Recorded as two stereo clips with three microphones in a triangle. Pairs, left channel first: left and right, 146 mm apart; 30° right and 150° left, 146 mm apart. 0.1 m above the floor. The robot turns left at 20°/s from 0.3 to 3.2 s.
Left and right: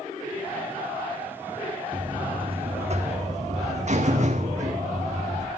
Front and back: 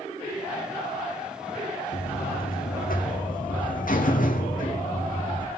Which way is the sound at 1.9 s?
25° right.